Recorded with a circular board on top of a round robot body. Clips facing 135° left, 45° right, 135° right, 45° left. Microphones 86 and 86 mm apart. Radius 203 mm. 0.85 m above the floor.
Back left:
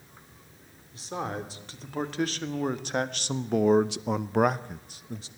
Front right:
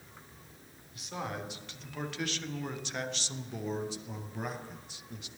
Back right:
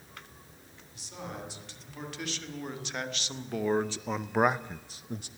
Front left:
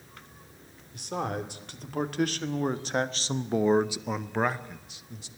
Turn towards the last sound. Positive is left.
turn(degrees=-170)